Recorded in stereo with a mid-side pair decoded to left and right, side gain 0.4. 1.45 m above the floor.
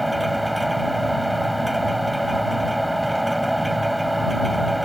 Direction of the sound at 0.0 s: Straight ahead.